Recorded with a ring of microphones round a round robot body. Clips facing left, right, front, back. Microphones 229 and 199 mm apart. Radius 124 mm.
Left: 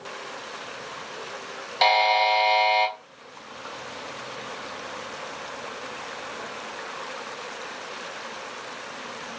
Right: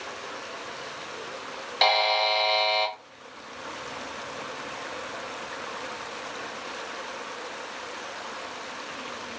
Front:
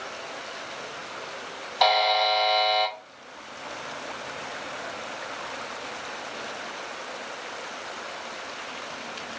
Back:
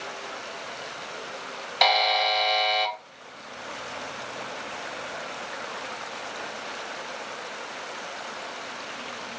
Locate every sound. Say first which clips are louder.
1.8 s a buzzer: left 3 dB, front 2 dB; 170° right, 0.7 m